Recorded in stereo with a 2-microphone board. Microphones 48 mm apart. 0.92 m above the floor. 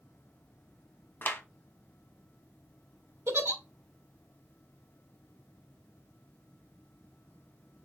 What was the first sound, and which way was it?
A clap, 50° left (ahead or behind).